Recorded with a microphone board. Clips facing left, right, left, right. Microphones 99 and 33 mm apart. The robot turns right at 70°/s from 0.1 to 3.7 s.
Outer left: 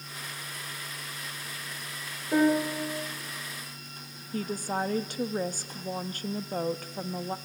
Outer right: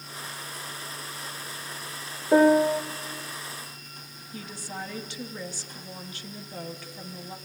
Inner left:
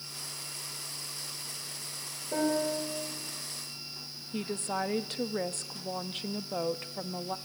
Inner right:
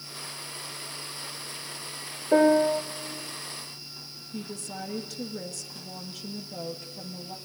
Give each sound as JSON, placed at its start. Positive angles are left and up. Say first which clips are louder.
{"t": 2.3, "sound": "a piano", "louder": "outer right 6 dB, inner right 10 dB", "azimuth_deg": -125, "distance_m": 1.7}
{"t": 4.3, "sound": "a woman speaking", "louder": "outer left 8 dB, inner left 5 dB", "side_deg": 50, "distance_m": 1.1}